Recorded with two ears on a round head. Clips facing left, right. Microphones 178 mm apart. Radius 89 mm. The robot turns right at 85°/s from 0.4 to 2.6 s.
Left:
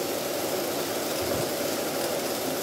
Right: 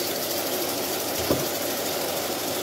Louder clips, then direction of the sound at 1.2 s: Right 5 dB; 85° right.